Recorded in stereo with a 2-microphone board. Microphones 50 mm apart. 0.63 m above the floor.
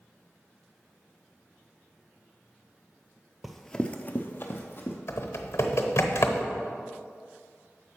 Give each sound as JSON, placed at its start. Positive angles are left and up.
{"t": 3.4, "sound": "running footsteps", "side_deg": -5, "distance_m": 0.8}
{"t": 5.1, "sound": "typing on a keyboard", "side_deg": 70, "distance_m": 0.9}